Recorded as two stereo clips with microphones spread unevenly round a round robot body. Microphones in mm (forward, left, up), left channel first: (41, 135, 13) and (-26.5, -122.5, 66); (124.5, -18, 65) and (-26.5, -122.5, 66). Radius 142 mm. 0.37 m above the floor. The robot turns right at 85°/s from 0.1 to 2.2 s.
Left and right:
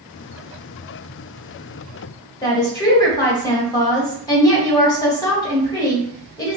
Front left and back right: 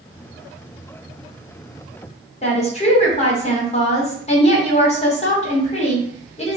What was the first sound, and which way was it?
A woman speaking, 30° left.